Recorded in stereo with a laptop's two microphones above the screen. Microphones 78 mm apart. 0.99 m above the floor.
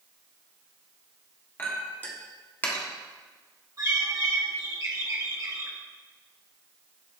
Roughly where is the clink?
Left.